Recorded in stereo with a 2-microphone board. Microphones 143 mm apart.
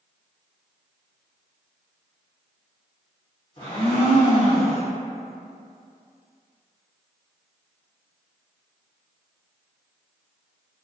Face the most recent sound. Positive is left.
turn(degrees=55)  # may be behind; listen again after turning